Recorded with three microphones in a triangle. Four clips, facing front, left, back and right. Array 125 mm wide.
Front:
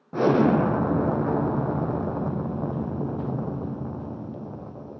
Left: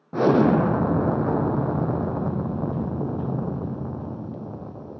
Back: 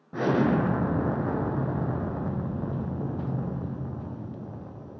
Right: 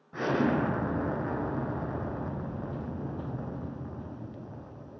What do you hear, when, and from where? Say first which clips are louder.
0.1 s an explosion: left 9 dB, front 4 dB; 65° left, 1.7 m